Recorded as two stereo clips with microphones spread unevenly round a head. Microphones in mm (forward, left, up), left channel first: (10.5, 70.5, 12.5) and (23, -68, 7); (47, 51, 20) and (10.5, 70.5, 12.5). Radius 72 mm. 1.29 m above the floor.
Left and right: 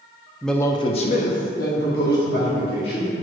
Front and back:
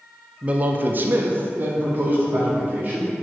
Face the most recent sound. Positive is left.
turn(degrees=110)